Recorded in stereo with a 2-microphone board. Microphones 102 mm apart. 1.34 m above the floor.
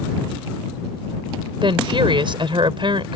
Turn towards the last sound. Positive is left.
turn(degrees=-55)  # may be behind; listen again after turning